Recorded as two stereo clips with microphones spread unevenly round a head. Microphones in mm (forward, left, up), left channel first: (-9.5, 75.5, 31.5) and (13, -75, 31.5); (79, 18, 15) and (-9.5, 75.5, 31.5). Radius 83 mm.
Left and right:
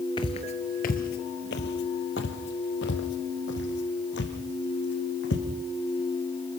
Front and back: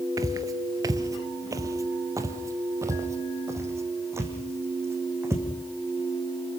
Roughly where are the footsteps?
Behind left.